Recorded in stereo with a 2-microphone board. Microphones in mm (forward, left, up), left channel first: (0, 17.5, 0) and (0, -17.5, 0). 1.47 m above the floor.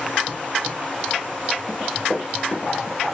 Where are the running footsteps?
20° left (ahead or behind), 1.9 m; by 3.0 s centre (ahead or behind), 1.4 m.